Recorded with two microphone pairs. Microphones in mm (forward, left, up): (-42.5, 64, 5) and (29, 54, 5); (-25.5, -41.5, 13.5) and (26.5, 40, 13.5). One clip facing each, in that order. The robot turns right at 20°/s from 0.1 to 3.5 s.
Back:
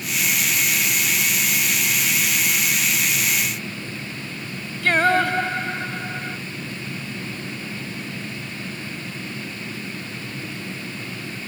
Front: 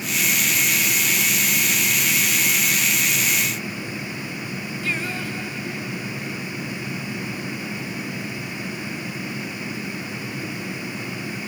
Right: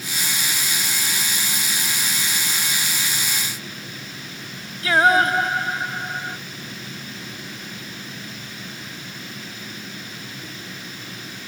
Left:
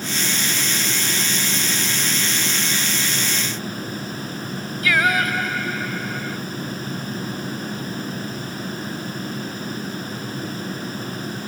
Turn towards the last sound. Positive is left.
turn(degrees=-175)